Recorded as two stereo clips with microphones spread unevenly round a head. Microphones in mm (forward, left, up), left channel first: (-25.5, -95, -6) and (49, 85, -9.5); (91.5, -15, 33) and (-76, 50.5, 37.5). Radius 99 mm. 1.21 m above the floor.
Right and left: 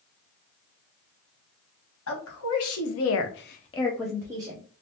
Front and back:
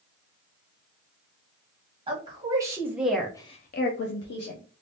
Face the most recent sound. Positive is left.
turn(degrees=0)